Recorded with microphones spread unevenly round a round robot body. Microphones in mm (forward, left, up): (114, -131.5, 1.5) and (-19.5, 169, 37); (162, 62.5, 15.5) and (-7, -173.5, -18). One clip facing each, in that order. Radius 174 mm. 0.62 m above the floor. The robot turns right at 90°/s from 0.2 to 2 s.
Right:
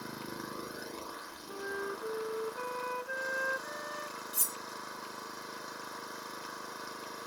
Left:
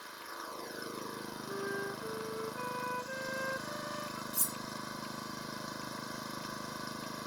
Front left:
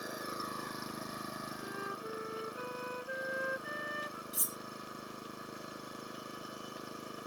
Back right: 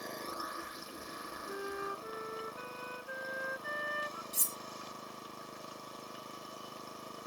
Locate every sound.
0.0 s an engine running: 30° right; by 7.3 s 135° left
1.5 s a flute: 175° left; by 4.2 s 135° right
4.3 s cutlery clinking: 70° right